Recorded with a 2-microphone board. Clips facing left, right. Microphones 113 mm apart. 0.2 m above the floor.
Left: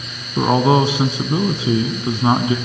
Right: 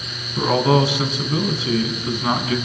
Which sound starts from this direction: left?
A man speaking, at 0.4 s.